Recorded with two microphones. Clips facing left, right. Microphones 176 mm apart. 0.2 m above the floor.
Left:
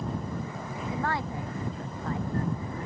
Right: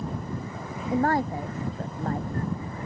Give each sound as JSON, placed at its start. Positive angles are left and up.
{"t": 0.9, "sound": "a woman speaking", "side_deg": -40}